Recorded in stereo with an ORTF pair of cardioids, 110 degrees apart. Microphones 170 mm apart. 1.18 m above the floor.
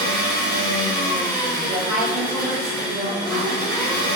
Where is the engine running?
60° right, 1.8 m.